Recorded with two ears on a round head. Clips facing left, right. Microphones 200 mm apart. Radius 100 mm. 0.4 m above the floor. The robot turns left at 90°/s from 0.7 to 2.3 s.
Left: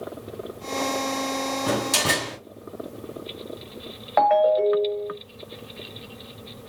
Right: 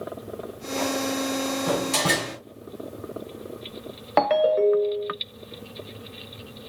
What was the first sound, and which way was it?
A door slam, 40° left.